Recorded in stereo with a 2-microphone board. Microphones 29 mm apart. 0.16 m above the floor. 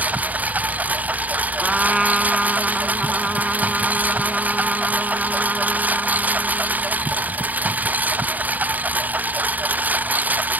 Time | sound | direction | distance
0.0 | a lawn mower | 65° right (ahead or behind) | ?
1.6 | a trumpet | 20° right (ahead or behind) | ?